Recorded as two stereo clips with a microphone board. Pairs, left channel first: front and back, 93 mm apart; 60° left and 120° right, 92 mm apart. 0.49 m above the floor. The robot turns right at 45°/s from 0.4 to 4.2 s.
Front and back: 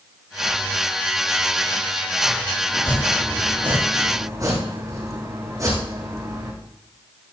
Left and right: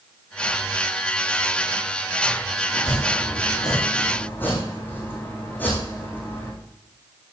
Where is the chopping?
60° left, 6 m; by 6.5 s 130° left, 6 m.